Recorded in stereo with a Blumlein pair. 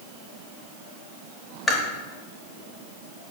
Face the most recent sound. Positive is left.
turn(degrees=15)